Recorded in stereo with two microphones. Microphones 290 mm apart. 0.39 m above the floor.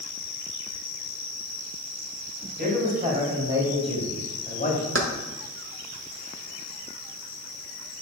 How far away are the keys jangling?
About 0.9 m.